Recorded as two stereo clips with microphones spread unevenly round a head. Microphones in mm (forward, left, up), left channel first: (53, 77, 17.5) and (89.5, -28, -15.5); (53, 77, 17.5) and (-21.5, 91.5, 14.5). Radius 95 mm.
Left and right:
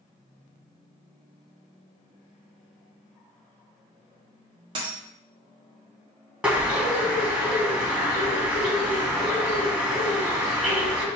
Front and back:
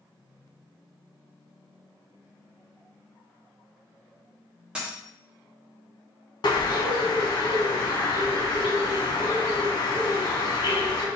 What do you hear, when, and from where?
4.8 s a dropped coin: 115° right, 1.1 m
6.4 s a bird: 15° left, 1.5 m